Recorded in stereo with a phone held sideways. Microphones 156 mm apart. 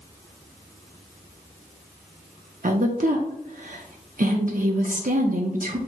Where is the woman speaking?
60° right (ahead or behind), 0.7 m.